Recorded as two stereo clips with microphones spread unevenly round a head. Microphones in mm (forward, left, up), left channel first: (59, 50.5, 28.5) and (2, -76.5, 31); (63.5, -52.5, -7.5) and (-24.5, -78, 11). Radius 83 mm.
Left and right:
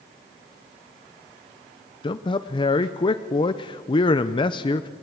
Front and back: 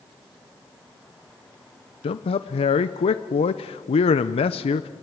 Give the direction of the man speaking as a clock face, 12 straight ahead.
12 o'clock.